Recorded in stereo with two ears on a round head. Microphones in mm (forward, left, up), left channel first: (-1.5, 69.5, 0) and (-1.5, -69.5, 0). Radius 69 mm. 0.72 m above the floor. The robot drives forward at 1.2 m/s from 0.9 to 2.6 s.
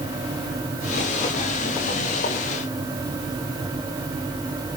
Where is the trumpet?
No trumpet in this recording.